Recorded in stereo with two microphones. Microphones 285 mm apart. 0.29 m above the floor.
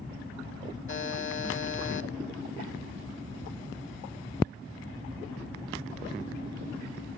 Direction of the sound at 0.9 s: 45° left (ahead or behind).